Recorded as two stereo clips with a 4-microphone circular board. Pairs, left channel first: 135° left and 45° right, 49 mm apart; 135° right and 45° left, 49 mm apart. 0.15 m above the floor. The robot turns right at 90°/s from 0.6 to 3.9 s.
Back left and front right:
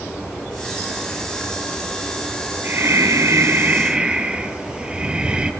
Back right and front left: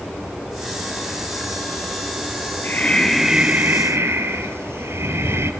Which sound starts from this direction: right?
Breathing, at 2.6 s.